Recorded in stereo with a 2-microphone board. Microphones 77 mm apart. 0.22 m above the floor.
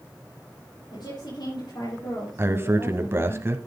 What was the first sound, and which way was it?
A woman speaking, 60° left (ahead or behind).